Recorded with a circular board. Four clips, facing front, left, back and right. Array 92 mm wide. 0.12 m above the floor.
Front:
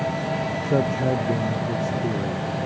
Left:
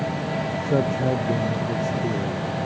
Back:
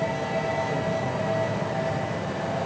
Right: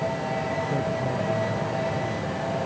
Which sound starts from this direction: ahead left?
A man speaking, at 0.6 s.